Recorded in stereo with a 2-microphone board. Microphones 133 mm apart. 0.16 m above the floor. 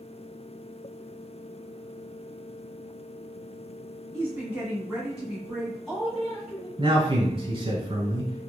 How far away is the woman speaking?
About 1.5 m.